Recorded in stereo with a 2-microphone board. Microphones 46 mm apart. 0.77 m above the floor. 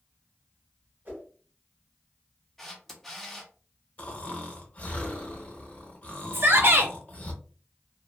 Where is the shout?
55° right (ahead or behind), 0.7 m.